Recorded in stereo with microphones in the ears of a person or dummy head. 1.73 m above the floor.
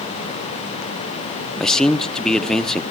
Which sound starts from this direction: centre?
A man speaking, at 1.6 s.